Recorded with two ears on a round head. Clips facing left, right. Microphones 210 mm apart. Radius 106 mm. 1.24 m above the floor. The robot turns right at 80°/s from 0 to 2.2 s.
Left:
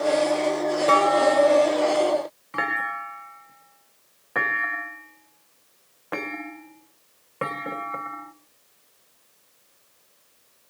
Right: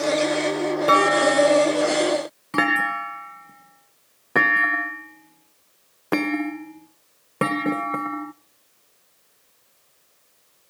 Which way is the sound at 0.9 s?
15° right (ahead or behind).